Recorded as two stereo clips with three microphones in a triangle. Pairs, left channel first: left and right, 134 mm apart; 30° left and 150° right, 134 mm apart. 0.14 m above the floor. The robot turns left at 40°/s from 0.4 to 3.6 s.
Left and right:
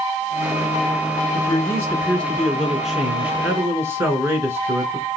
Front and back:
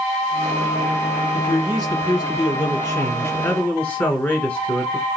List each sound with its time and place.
1.3 s a man speaking: 50° left, 1.4 m; by 5.1 s 40° right, 1.4 m